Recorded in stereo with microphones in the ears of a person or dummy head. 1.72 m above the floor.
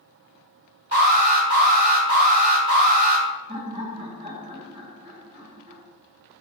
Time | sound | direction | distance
0.9 | an alarm | 35° right (ahead or behind) | 1.2 m
3.5 | laughter | 25° right (ahead or behind) | 0.9 m